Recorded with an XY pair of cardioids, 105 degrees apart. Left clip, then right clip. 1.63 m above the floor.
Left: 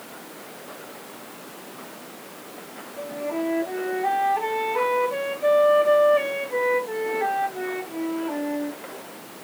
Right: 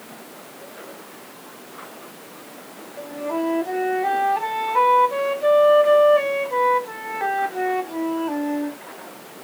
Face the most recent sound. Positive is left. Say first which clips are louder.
# right 2 dB
turn(degrees=-45)